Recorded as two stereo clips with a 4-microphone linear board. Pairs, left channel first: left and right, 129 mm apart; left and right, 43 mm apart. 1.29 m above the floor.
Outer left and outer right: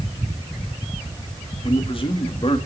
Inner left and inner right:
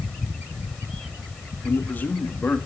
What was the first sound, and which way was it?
A man speaking, 45° left (ahead or behind).